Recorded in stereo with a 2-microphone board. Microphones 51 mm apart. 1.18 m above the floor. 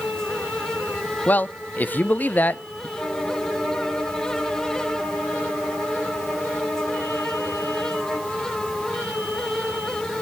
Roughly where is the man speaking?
Left.